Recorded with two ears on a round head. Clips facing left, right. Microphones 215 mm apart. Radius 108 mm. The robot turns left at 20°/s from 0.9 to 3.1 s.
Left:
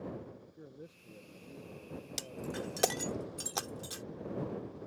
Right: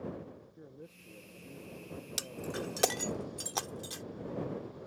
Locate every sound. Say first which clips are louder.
0.6 s a man speaking: even; 5° left; by 3.2 s 40° right
2.2 s breaking glass: right 1 dB; 10° right (ahead or behind); by 4.0 s 5° left (ahead or behind)